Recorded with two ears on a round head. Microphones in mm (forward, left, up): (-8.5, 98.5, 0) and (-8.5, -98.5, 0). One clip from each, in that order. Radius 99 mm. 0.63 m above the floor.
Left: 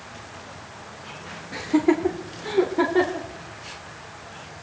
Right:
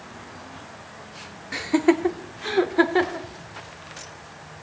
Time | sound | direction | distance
1.5 | laughter | 60° right (ahead or behind) | 1.5 m